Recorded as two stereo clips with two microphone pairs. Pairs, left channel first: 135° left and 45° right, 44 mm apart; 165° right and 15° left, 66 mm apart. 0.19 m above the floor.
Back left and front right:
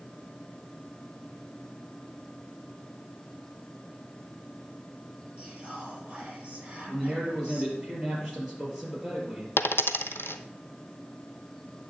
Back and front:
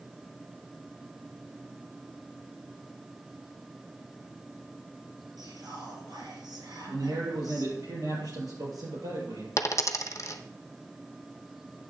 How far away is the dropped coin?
About 0.6 m.